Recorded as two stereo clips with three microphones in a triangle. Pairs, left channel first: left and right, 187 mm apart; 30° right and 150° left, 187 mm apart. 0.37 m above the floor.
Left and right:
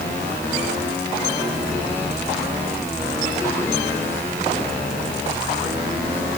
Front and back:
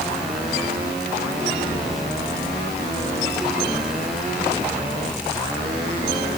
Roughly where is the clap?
No clap in this recording.